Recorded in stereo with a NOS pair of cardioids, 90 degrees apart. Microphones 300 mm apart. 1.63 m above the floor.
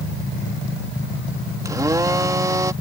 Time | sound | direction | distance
1.6 | a blender | 10° right | ?